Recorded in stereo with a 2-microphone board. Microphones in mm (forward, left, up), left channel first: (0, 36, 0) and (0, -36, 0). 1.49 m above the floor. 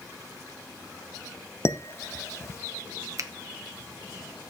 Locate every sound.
1.6 s dishes clattering: 35° left (ahead or behind), 0.6 m
3.2 s a finger snap: 45° right (ahead or behind), 0.7 m